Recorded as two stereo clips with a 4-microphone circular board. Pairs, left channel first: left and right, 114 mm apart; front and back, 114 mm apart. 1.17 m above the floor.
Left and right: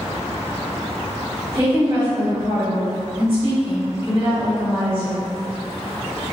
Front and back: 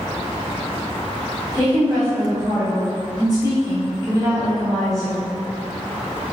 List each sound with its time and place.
1.5 s a woman speaking: 125° right, 1.5 m